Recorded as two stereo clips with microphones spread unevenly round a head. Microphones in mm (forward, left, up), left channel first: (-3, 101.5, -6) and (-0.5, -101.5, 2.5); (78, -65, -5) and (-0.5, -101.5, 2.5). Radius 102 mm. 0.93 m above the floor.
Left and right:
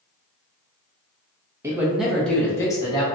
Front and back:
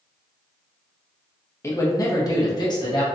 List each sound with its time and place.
1.6 s a man speaking: 15° right, 1.2 m; by 3.0 s 30° left, 1.4 m